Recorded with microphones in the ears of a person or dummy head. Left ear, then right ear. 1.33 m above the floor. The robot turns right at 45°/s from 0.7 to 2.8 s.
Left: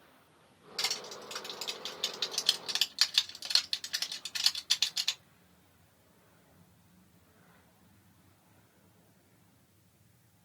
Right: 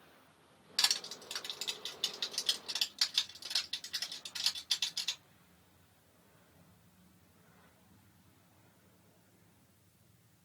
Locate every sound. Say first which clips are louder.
0.8 s crushing: right 3 dB; 35° right (ahead or behind), 1.1 m; by 5.2 s 40° left (ahead or behind), 1.1 m